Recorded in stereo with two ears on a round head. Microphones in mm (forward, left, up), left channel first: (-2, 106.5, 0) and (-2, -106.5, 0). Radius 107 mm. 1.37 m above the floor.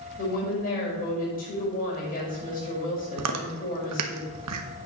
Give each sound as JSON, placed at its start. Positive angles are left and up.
{"t": 0.2, "sound": "a woman speaking", "side_deg": 40, "distance_m": 5.5}
{"t": 3.2, "sound": "chewing", "side_deg": -75, "distance_m": 1.1}